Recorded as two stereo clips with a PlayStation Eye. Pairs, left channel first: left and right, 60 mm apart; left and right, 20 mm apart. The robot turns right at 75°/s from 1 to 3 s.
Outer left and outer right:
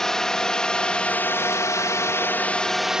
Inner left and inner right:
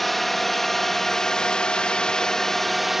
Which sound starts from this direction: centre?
A drone, at 0.0 s.